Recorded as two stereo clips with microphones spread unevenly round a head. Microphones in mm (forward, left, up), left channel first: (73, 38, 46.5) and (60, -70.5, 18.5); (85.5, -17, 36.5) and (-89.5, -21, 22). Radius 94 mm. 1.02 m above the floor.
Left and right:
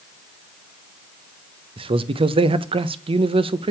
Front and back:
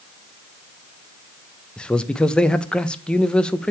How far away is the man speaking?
About 0.6 m.